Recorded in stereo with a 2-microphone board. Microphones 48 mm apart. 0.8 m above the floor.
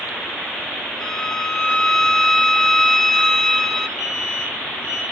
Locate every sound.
1.0 s a violin: 10° left (ahead or behind), 0.7 m
4.0 s an alarm: 10° right (ahead or behind), 3 m